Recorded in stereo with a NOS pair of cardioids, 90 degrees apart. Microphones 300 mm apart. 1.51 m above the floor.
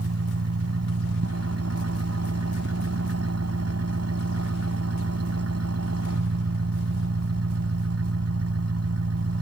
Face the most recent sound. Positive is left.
turn(degrees=-55)